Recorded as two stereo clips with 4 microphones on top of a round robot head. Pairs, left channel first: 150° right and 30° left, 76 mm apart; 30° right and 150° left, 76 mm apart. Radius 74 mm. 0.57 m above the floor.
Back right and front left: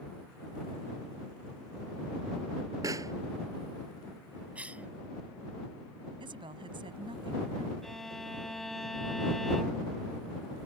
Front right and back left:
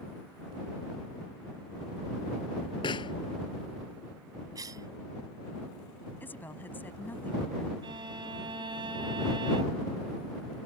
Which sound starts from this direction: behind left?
A violin, at 7.8 s.